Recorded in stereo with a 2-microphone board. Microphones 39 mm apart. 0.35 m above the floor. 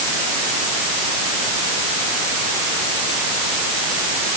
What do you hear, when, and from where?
Only background noise.